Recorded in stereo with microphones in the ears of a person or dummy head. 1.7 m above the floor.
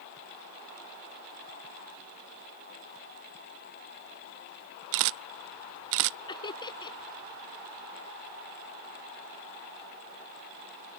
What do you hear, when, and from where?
4.9 s a camera shutter: 70° right (ahead or behind)
6.3 s laughter: 25° left (ahead or behind)